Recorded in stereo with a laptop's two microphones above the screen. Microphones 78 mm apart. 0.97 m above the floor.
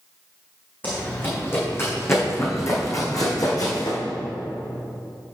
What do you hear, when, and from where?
0.8 s running footsteps: 25° left (ahead or behind), 2.5 m; by 4.0 s 60° left (ahead or behind), 2.0 m